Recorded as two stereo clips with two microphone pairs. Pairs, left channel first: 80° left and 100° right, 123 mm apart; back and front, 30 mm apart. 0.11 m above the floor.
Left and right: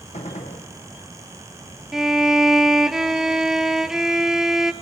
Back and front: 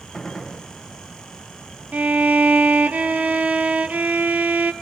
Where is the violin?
15° right, 0.6 m.